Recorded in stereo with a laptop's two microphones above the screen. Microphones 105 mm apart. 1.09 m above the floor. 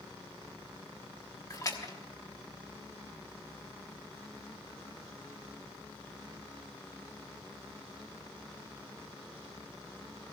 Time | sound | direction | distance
1.5 | a splash | 35° left (ahead or behind) | 1.3 m